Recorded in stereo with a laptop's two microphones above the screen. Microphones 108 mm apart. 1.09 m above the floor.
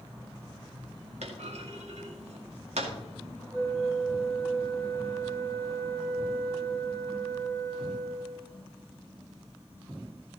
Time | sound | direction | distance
1.2 | a clunk | 80° right | 2 m
3.5 | a flute | 20° right (ahead or behind) | 2.5 m